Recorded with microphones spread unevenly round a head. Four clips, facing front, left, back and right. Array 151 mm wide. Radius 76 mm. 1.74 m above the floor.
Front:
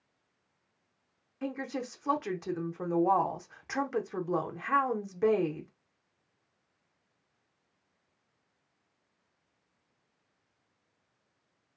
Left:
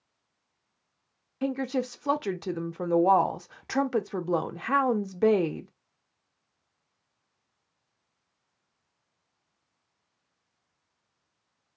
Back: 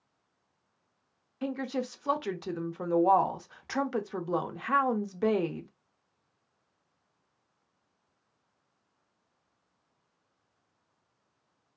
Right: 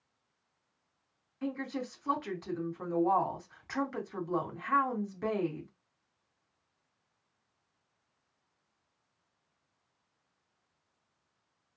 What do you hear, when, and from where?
1.4 s a woman speaking: 80° left, 0.5 m